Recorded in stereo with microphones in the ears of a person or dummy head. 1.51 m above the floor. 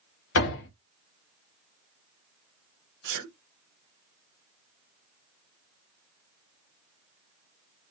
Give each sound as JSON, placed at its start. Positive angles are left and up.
{"t": 0.3, "sound": "a door slam", "side_deg": 60, "distance_m": 1.5}
{"t": 3.0, "sound": "a sneeze", "side_deg": -60, "distance_m": 1.6}